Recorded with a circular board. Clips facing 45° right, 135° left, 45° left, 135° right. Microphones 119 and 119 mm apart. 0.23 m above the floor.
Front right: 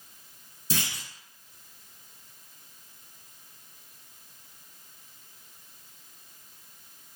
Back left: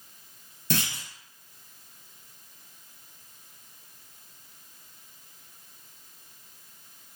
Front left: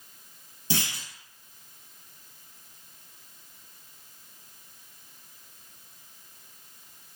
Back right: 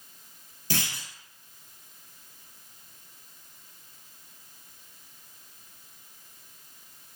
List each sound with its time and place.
0.7 s a clunk: 115° left, 0.9 m